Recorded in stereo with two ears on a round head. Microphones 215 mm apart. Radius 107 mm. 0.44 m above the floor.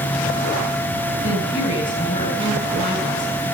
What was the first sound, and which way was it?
A woman speaking, 35° left (ahead or behind).